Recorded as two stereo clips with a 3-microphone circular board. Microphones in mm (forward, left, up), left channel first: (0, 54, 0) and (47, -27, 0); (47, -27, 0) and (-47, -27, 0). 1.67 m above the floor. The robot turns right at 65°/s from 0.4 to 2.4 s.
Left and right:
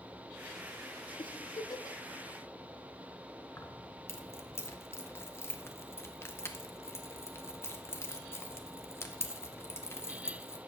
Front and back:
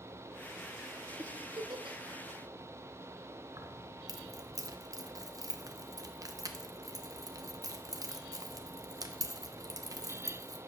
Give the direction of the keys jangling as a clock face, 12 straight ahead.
7 o'clock.